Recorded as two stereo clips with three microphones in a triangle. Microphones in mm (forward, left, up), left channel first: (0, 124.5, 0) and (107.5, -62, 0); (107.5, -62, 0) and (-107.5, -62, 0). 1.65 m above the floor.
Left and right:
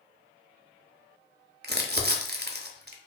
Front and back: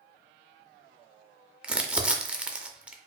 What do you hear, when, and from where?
1.6 s crumpling: 95° right, 0.5 m